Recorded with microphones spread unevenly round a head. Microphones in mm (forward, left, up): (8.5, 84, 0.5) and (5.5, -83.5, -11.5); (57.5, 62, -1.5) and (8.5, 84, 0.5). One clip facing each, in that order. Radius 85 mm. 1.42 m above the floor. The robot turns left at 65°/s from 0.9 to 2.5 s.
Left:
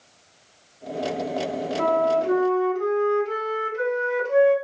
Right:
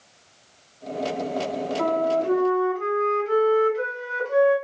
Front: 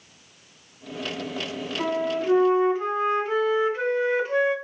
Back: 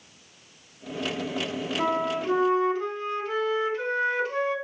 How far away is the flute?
About 1.6 m.